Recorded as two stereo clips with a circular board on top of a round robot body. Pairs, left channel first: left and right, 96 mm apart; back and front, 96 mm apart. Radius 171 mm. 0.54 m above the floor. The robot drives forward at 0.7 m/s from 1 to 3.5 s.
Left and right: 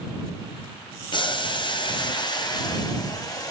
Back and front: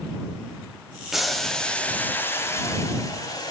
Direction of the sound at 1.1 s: 85° left.